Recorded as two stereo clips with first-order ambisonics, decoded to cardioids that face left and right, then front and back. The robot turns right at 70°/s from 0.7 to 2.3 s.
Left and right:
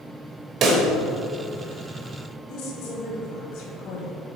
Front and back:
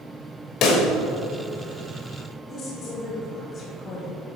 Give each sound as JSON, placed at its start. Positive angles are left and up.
{"t": 0.6, "sound": "a pop", "azimuth_deg": -40, "distance_m": 1.2}
{"t": 2.5, "sound": "a woman speaking", "azimuth_deg": 60, "distance_m": 2.5}